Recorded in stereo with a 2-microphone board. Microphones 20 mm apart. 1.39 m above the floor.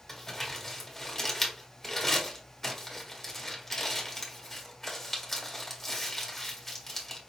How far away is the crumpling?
About 1.5 m.